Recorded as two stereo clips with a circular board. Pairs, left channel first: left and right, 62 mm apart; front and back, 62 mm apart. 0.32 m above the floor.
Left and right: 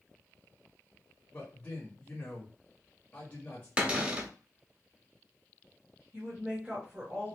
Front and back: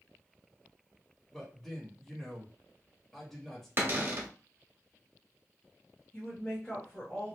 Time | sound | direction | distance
1.3 | a man speaking | 75° left | 1.0 m
3.8 | a cupboard door | 150° right | 0.8 m
6.1 | a woman speaking | 35° right | 1.5 m